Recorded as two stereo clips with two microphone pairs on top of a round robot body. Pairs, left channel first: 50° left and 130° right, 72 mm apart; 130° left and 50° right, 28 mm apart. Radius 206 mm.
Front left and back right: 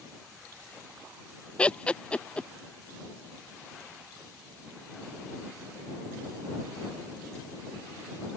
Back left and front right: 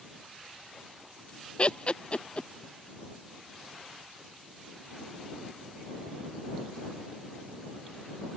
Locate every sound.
1.6 s laughter: 125° left